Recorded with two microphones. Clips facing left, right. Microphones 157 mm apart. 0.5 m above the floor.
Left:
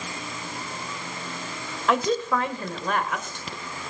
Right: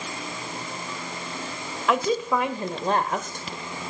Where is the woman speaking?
Centre (ahead or behind), 1.9 m; by 3.9 s 55° right (ahead or behind), 1.9 m.